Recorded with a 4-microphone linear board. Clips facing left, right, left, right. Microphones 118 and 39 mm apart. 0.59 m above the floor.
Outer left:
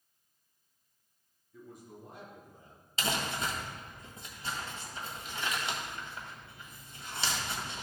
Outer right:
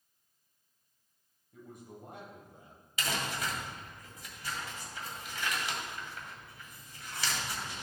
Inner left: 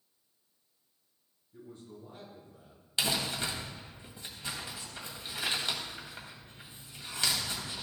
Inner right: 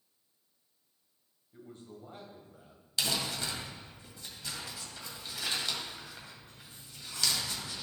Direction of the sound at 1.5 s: 65° right (ahead or behind).